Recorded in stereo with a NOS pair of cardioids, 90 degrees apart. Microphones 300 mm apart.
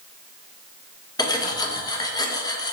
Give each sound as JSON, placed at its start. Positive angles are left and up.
{"t": 1.2, "sound": "cutlery clinking", "azimuth_deg": 15, "distance_m": 0.7}